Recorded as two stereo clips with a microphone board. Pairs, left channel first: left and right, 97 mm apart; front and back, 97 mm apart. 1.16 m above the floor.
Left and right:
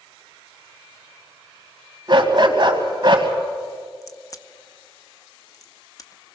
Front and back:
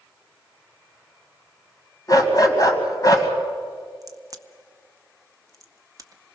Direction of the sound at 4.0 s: 135° left.